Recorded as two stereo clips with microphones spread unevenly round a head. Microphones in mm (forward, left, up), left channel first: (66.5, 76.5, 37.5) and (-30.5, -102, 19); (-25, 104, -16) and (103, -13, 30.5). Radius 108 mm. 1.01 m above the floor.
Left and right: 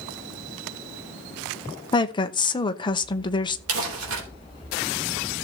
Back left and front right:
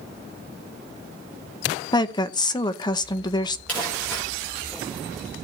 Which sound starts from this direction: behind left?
A woman speaking, at 1.9 s.